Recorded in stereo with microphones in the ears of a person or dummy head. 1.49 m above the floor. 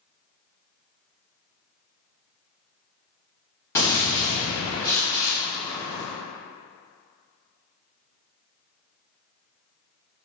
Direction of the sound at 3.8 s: 15° left (ahead or behind).